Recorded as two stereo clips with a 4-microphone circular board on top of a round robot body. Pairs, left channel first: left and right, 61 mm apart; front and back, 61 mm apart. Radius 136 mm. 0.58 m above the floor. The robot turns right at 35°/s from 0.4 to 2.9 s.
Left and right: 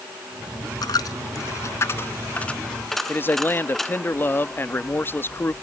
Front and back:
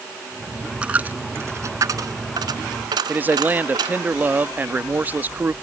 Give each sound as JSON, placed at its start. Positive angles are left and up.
{"t": 0.8, "sound": "a dropped coin", "azimuth_deg": 105}
{"t": 3.1, "sound": "a man speaking", "azimuth_deg": 130}